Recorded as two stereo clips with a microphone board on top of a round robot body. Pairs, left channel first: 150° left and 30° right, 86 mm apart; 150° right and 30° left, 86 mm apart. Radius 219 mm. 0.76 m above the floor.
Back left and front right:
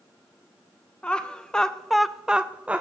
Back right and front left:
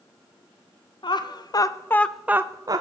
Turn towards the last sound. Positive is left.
turn(degrees=40)